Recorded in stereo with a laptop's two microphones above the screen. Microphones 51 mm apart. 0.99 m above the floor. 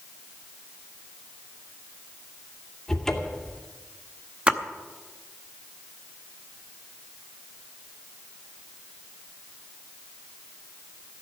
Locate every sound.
2.9 s a cupboard door: 10° left (ahead or behind), 2.5 m
4.5 s a splash: 20° right (ahead or behind), 0.8 m